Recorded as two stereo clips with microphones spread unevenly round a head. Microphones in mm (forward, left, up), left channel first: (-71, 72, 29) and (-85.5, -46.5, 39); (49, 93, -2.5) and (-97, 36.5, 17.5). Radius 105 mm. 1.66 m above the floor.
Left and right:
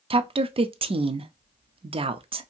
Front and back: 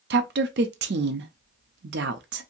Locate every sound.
0.1 s a woman speaking: 140° right, 0.6 m